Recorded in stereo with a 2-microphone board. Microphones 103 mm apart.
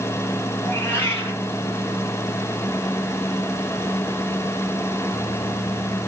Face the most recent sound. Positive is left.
turn(degrees=25)  # may be behind; listen again after turning